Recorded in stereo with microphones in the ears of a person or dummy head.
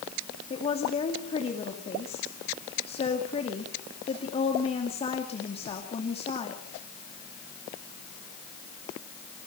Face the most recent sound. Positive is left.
turn(degrees=35)  # may be behind; listen again after turning